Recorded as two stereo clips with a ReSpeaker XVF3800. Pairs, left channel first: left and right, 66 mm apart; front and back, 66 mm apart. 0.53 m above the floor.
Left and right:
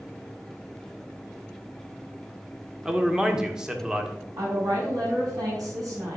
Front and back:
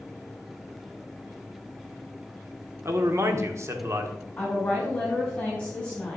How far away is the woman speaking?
About 4.5 m.